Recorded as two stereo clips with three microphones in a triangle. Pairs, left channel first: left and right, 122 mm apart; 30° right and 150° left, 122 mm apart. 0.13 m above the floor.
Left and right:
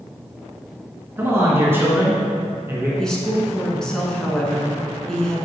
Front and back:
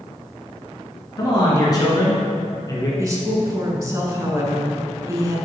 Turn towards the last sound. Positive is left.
turn(degrees=170)